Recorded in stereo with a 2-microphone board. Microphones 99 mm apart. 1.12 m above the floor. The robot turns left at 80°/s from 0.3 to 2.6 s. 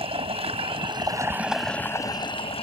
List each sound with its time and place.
0.0 s running water: 75° right; by 2.6 s 100° left